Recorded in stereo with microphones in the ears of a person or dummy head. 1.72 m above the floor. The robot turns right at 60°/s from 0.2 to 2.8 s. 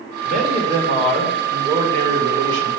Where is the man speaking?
115° left, 2.5 m; by 2.7 s 100° right, 2.5 m.